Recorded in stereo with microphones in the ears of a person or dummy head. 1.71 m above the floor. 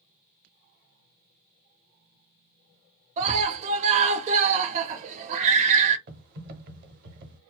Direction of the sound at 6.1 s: 45° right (ahead or behind).